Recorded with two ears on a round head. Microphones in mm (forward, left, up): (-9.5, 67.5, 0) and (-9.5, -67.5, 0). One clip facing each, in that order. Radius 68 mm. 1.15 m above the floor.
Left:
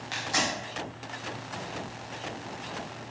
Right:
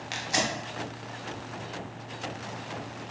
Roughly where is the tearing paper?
Right.